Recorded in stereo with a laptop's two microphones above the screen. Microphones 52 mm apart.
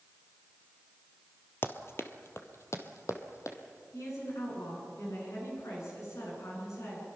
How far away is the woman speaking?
About 9.5 m.